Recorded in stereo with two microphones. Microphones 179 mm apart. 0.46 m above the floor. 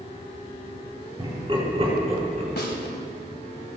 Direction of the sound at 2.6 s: 65° left (ahead or behind).